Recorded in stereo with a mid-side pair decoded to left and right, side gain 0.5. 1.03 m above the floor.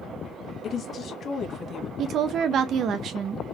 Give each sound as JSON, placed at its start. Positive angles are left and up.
{"t": 0.6, "sound": "a woman speaking", "azimuth_deg": 50, "distance_m": 1.4}
{"t": 2.0, "sound": "a woman speaking", "azimuth_deg": -60, "distance_m": 0.7}